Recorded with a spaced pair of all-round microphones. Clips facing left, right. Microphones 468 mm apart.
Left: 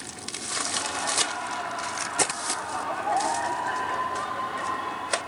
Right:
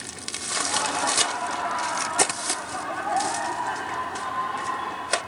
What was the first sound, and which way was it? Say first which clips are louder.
Laughter: right 6 dB; 65° right (ahead or behind).